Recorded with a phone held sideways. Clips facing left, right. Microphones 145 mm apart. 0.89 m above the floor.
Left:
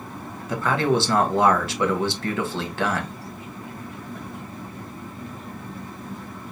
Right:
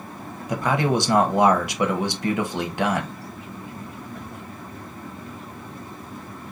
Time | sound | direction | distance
0.5 | a man speaking | 15° right (ahead or behind) | 0.8 m